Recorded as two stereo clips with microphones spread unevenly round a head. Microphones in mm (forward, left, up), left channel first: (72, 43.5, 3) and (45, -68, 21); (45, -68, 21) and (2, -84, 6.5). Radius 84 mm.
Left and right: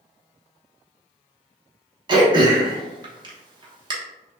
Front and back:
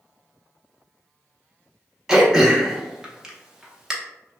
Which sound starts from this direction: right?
Throat clearing, at 2.1 s.